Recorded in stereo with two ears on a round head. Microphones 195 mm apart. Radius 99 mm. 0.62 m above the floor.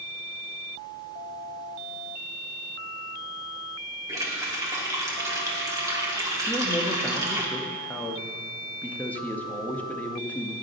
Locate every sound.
4.1 s a running tap: 15° right (ahead or behind), 1.0 m
6.5 s a man speaking: 10° left (ahead or behind), 0.5 m